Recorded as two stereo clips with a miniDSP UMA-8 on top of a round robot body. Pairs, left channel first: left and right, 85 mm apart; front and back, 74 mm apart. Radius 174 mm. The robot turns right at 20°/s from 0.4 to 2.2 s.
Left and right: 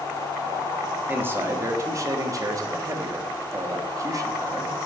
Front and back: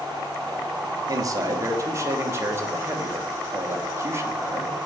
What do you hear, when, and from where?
1.1 s a man speaking: 155° right, 0.9 m; by 4.8 s 130° right, 0.9 m